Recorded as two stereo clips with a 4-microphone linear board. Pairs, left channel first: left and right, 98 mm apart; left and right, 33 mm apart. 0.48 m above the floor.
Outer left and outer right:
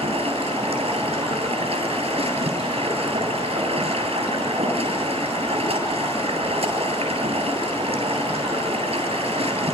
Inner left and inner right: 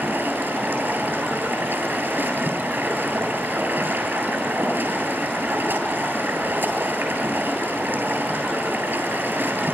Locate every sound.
0.0 s running water: 85° right, 9 m